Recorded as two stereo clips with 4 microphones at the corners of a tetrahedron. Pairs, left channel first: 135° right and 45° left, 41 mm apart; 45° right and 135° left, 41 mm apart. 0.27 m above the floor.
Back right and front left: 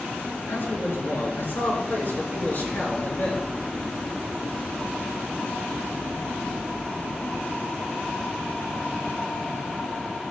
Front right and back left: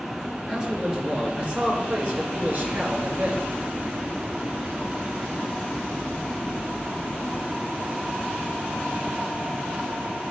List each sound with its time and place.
0.5 s a man speaking: 150° right, 4.5 m; by 3.5 s 170° left, 5 m